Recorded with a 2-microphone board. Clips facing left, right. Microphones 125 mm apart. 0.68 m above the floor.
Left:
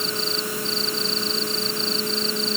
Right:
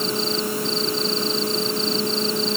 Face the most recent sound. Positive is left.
No sound to turn to.